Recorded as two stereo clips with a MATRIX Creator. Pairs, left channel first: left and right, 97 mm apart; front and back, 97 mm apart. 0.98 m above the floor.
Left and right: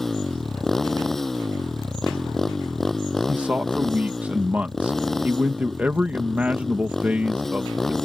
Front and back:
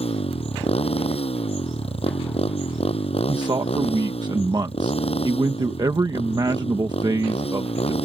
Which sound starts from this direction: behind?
A man speaking, at 3.3 s.